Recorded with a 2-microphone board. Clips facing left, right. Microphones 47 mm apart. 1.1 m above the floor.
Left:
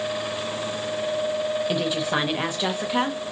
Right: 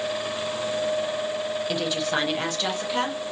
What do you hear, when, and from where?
1.7 s a woman speaking: 10° left (ahead or behind), 1.0 m